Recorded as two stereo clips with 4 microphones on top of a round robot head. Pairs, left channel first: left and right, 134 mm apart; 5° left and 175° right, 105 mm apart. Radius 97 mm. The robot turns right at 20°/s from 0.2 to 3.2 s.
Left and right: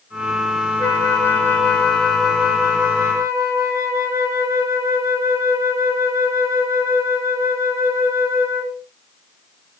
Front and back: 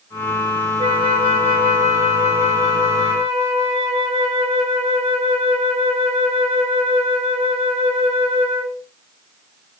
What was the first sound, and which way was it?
A flute, 155° left.